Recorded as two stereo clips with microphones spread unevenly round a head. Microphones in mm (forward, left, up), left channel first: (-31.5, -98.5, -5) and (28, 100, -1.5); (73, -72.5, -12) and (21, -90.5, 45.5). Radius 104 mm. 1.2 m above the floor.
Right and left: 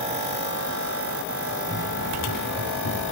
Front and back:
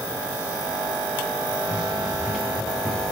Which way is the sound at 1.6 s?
70° right.